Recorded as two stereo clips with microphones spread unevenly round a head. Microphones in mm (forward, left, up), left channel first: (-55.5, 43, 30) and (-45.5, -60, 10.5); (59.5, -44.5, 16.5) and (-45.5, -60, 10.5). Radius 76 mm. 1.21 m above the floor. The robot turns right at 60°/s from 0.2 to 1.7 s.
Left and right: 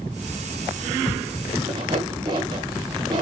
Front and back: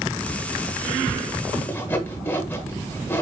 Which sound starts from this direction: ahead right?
Sawing, at 1.7 s.